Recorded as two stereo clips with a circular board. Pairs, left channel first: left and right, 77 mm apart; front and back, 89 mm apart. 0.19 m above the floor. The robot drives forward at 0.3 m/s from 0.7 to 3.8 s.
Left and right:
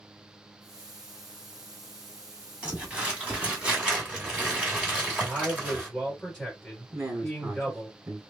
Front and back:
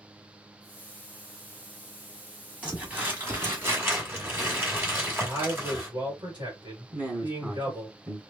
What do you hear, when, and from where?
2.6 s crumpling: 130° right, 1.4 m; by 5.9 s 150° right, 1.5 m
5.2 s a man speaking: 170° left, 1.8 m
6.9 s a man speaking: 115° right, 1.4 m